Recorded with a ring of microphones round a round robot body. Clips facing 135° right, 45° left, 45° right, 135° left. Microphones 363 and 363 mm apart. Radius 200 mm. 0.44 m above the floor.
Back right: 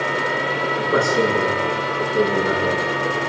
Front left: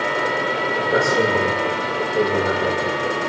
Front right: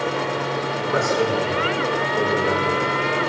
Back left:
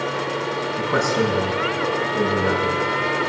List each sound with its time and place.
0.8 s a man speaking: 140° left, 5.5 m